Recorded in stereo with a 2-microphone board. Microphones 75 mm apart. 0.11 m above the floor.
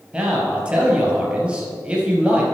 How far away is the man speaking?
About 2.5 m.